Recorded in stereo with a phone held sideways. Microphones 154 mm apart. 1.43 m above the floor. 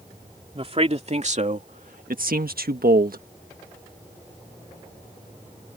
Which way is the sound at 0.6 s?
40° right (ahead or behind).